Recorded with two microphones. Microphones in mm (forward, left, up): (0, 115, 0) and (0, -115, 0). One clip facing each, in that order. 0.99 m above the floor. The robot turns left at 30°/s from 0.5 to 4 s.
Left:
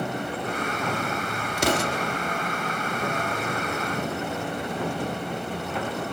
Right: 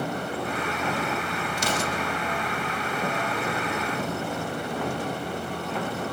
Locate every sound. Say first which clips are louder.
1.6 s an explosion: left 6 dB; 60° left (ahead or behind), 0.7 m; by 2.2 s 65° left (ahead or behind), 0.7 m